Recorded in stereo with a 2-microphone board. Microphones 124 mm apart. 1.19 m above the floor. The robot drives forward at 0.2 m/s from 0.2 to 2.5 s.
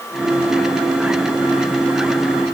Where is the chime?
I don't hear a chime.